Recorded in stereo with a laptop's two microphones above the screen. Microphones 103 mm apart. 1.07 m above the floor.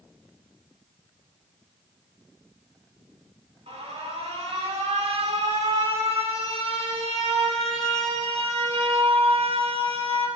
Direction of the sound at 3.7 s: 80° right.